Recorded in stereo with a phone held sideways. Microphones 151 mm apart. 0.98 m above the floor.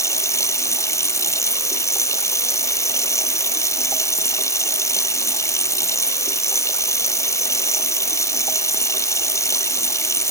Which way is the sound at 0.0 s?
20° left (ahead or behind).